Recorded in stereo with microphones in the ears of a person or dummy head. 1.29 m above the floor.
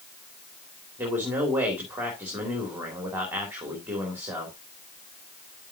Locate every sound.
1.0 s a man speaking: 10° right (ahead or behind), 2.5 m